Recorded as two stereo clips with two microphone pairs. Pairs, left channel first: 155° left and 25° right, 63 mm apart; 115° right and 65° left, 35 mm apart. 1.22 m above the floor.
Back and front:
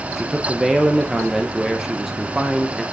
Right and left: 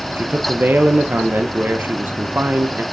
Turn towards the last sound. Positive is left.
turn(degrees=60)